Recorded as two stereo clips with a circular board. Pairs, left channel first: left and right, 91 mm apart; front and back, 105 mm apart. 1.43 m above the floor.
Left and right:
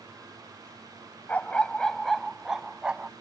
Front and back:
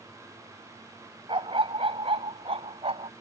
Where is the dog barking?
160° left; by 3.1 s 165° right.